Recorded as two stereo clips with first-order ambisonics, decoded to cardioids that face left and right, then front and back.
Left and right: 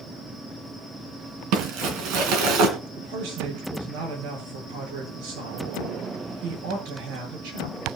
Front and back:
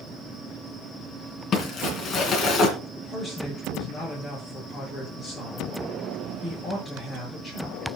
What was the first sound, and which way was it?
Crumpling, 65° right.